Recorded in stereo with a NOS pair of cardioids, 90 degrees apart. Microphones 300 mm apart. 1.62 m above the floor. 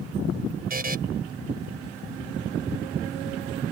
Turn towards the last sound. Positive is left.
turn(degrees=-30)